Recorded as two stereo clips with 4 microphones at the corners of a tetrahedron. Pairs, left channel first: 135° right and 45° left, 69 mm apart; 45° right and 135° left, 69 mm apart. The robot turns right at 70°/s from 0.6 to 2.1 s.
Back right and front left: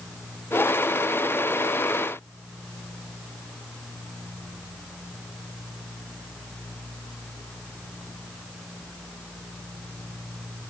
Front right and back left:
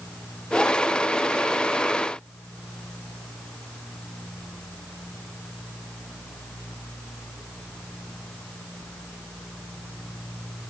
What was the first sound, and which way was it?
Only background noise.